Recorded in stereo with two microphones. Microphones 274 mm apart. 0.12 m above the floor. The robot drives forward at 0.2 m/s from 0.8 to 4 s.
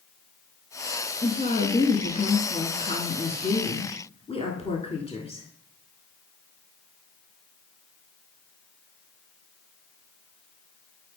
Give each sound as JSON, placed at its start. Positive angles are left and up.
{"t": 1.2, "sound": "a woman speaking", "side_deg": 25, "distance_m": 1.2}